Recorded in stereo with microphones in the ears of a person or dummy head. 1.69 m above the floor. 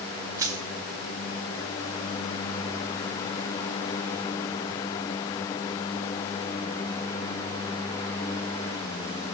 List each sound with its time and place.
0.4 s crushing: 15° right (ahead or behind), 2.0 m